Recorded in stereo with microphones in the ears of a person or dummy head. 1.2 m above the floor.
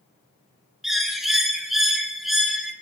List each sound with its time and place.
0.8 s a bird: centre (ahead or behind), 0.9 m